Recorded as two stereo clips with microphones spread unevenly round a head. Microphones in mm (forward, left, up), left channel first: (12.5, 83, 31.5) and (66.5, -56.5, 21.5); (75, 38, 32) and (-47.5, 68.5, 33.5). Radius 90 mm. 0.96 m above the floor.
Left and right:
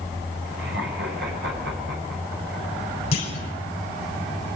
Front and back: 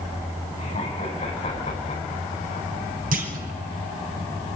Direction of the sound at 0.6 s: 75° right.